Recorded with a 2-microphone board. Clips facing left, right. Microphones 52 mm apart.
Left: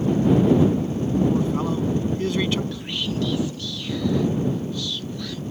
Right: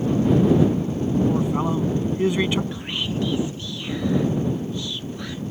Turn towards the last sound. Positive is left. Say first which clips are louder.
# even
turn(degrees=-20)  # may be behind; listen again after turning